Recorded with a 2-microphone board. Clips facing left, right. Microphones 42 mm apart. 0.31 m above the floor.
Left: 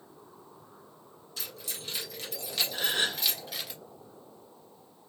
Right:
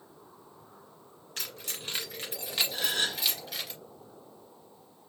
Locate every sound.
1.4 s keys jangling: 55° right (ahead or behind), 1.9 m; by 3.7 s centre (ahead or behind), 2 m
2.7 s a gasp: 15° left (ahead or behind), 1.0 m